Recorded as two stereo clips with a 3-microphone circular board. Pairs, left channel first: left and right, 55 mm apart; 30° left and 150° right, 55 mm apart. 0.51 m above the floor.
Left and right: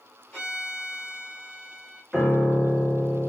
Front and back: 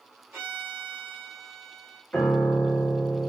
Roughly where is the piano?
Ahead.